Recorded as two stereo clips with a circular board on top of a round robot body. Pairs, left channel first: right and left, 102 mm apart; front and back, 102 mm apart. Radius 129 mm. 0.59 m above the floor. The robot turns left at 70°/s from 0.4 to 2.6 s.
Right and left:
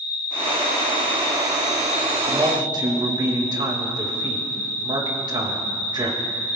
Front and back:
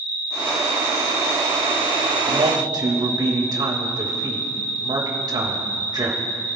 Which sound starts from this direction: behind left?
A man speaking, at 2.3 s.